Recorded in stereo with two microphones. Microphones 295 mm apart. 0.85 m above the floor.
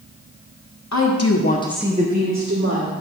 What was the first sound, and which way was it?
A woman speaking, 70° left (ahead or behind).